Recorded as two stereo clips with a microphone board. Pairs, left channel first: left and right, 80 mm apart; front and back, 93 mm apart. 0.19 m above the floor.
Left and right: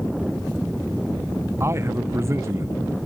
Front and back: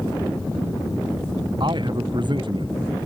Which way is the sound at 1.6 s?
145° right.